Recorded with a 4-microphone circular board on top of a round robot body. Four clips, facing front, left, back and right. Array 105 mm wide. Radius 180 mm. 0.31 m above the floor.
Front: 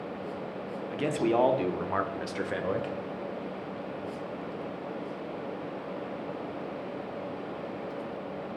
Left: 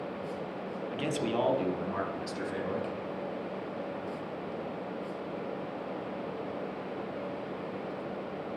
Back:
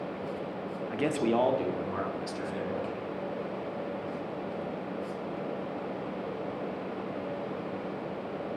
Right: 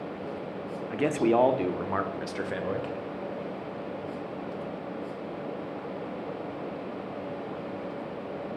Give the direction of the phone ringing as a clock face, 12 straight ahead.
I don't hear a phone ringing.